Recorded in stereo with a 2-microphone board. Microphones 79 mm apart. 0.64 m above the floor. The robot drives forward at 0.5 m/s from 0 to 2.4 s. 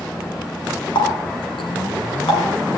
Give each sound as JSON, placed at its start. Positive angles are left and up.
{"t": 0.9, "sound": "a running tap", "side_deg": 85, "distance_m": 4.5}